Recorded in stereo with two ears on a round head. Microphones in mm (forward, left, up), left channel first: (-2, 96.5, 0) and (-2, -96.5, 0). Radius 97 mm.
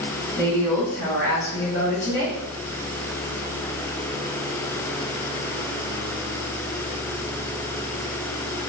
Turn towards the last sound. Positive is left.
turn(degrees=35)  # may be behind; listen again after turning